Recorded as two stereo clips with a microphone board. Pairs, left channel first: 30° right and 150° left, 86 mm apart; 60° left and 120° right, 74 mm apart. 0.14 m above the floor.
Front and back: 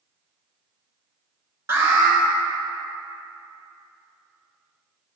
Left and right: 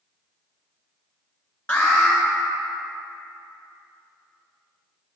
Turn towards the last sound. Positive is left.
turn(degrees=115)